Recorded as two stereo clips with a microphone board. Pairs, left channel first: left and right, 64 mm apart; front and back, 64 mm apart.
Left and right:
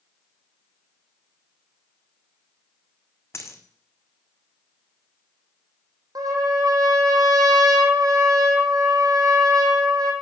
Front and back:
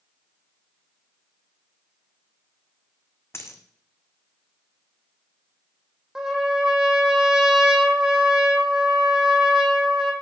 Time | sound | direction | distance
3.3 | a dropped coin | 50° left | 1.4 m
6.2 | a trumpet | 95° right | 2 m